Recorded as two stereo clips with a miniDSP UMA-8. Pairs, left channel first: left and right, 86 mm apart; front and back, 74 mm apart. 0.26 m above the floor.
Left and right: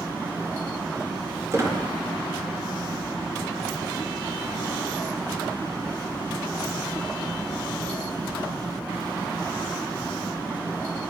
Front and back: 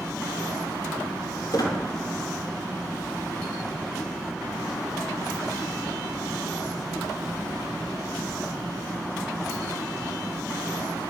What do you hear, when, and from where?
1.5 s a squeak: 30° right, 2.5 m